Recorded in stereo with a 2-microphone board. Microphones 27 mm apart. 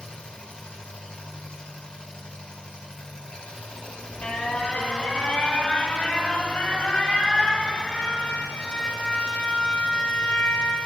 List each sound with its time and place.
0.0 s an engine running: 45° left (ahead or behind), 4 m
3.7 s an alarm: 60° left (ahead or behind), 4 m